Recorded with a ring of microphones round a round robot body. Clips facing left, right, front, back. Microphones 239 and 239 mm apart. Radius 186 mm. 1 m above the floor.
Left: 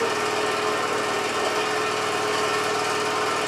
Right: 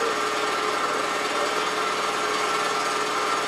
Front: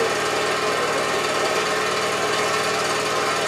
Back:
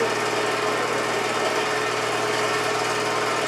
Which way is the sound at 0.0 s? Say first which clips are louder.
Left 2 dB, front 1 dB; 45° left.